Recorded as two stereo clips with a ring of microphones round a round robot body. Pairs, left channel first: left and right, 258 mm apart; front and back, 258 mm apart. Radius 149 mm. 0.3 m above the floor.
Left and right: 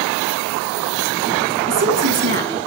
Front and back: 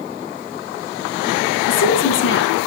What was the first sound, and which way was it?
A woman speaking, 45° right.